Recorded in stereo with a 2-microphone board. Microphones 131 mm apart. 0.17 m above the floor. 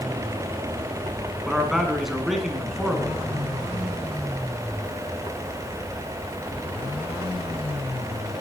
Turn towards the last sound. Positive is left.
turn(degrees=0)  # may be behind; listen again after turning